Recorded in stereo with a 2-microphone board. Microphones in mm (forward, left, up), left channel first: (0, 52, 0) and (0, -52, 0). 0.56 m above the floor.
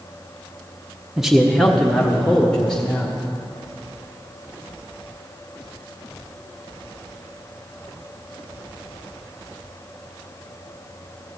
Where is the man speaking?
5° right (ahead or behind), 0.7 m; by 3.3 s 10° left (ahead or behind), 1.7 m.